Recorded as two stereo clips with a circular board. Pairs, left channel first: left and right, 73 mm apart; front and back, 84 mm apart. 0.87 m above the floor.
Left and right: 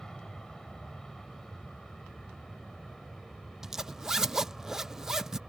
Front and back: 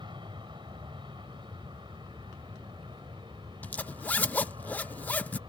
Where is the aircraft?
170° left; by 5.5 s straight behind.